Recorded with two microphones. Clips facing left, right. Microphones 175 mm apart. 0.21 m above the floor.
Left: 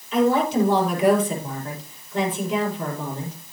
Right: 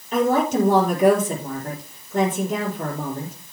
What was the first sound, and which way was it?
A woman speaking, 45° right (ahead or behind).